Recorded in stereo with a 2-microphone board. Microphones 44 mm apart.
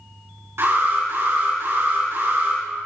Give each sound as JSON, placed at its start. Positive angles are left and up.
{"t": 0.6, "sound": "an alarm", "side_deg": -65, "distance_m": 4.5}